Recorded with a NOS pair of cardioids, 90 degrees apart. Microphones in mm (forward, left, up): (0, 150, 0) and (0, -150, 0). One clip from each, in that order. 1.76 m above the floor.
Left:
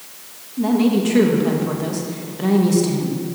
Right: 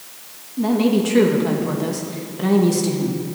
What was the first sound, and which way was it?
A woman speaking, 5° right.